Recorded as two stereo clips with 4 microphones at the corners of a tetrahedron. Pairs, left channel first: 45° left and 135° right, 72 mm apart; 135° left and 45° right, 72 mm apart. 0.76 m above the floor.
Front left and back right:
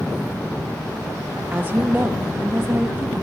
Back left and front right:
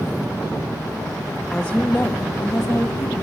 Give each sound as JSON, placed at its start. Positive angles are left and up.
{"t": 1.5, "sound": "a woman speaking", "azimuth_deg": -160, "distance_m": 0.6}